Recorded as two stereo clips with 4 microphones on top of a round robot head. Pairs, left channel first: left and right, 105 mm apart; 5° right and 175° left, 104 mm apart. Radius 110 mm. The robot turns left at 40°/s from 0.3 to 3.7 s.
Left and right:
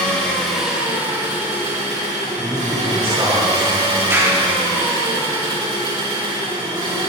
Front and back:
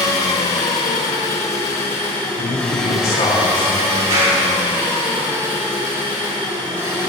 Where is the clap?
155° right, 3.5 m.